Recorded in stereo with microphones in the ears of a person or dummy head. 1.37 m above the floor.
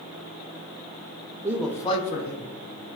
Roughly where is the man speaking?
Centre.